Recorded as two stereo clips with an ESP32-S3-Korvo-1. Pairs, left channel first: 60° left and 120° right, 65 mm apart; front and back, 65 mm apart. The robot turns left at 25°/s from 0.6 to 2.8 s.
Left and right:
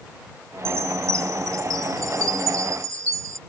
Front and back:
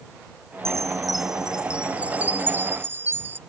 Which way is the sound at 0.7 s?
80° right.